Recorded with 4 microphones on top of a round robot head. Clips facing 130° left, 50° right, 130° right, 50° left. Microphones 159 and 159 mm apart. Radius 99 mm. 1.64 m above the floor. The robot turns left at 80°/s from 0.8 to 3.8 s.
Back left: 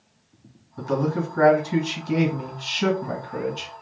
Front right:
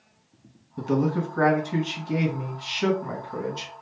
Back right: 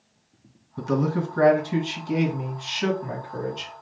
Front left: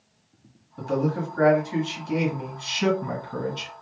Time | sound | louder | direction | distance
0.8 | a man speaking | even, back right 1 dB | 110° right | 1.9 m